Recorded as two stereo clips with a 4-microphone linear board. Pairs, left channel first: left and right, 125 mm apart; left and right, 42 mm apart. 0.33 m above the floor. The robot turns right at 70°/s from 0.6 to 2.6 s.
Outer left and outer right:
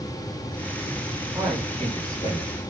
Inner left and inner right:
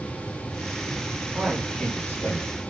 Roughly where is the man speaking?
Ahead.